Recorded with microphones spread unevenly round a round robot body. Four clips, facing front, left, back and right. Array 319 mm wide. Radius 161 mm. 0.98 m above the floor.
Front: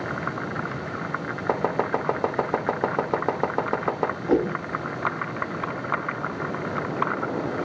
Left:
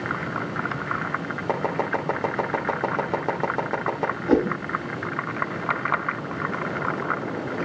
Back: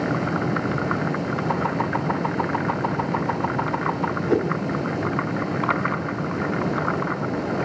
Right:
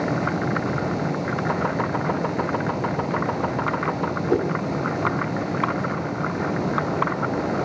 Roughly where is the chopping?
Ahead.